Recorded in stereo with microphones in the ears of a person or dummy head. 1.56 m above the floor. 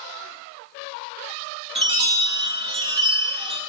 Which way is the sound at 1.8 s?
30° right (ahead or behind).